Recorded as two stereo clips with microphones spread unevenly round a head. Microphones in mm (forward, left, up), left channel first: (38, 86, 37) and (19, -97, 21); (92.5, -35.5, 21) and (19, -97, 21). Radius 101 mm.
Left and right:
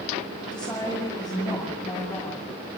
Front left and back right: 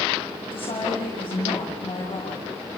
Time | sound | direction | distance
0.5 | a woman speaking | 5° left | 6.5 m